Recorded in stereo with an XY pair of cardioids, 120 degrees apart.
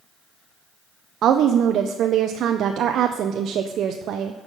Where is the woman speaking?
60° right, 0.5 m.